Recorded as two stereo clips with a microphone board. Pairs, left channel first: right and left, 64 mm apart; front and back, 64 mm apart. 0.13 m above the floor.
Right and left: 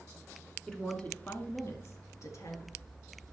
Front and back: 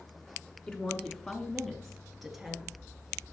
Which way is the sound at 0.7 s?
30° right.